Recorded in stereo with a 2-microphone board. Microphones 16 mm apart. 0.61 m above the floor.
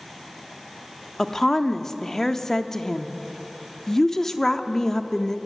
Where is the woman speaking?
30° left (ahead or behind), 1.0 m.